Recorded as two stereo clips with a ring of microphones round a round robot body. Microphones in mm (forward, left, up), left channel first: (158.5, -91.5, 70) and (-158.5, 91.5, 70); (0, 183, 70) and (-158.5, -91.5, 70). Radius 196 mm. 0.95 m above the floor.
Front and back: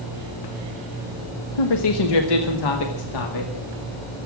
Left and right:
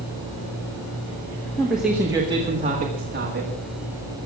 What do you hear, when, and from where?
1.6 s a man speaking: 25° right, 1.4 m; by 3.5 s 60° right, 2.5 m